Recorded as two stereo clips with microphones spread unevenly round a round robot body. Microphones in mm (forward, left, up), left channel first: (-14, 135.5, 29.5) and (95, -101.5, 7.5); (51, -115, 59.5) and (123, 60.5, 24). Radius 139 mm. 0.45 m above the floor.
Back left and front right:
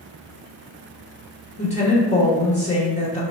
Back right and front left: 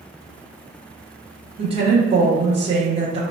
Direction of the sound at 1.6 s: 55° left.